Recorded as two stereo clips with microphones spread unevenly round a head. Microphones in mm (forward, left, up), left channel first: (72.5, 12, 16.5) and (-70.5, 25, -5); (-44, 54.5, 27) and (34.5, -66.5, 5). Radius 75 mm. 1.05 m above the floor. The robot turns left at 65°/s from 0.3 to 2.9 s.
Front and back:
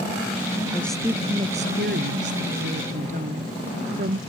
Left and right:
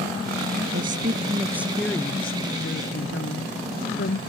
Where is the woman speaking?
80° right; by 4.2 s 140° left.